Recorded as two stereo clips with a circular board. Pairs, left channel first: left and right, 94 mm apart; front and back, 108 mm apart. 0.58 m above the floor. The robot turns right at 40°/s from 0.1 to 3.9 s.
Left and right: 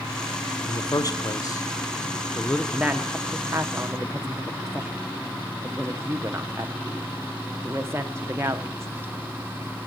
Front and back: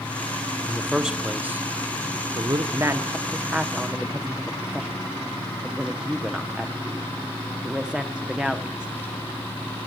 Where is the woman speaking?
155° right, 0.7 m; by 8.9 s 105° right, 0.7 m.